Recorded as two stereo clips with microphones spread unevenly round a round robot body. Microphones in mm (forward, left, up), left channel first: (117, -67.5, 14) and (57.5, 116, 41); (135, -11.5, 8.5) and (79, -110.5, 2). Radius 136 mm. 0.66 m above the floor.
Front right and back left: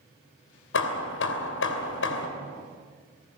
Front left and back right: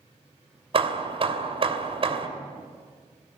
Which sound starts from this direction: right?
Hammering, at 0.7 s.